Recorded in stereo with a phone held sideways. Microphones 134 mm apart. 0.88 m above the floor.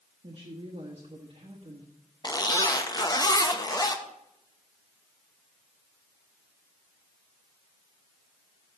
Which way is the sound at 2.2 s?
30° left (ahead or behind).